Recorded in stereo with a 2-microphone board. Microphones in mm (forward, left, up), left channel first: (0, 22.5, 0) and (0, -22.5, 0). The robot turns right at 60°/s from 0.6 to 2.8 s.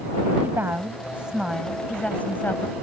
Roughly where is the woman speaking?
Ahead right.